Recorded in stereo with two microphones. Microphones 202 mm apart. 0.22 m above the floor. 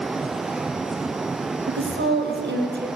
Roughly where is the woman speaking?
Right.